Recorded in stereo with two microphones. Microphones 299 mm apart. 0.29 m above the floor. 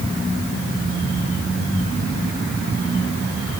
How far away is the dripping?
I don't hear dripping.